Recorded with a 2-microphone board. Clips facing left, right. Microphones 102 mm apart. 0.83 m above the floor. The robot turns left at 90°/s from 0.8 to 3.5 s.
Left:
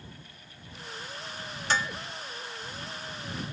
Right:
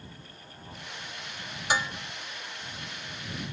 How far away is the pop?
No pop in this recording.